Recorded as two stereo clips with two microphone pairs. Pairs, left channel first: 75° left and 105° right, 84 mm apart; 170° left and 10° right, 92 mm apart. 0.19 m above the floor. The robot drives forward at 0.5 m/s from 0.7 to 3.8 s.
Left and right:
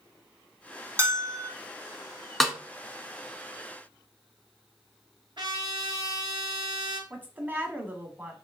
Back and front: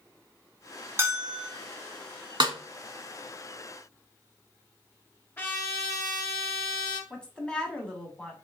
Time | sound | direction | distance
1.0 | a bell | 65° right | 1.3 m
2.4 | a snare drum | 15° right | 0.7 m
5.4 | a trumpet | 130° right | 1.1 m
7.1 | a woman speaking | 130° right | 1.0 m